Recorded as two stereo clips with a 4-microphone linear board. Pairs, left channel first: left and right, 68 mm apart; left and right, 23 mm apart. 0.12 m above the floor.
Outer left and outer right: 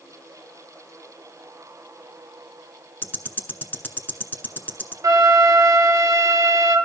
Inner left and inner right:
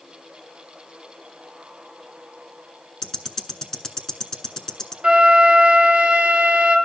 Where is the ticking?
30° left (ahead or behind), 0.7 m.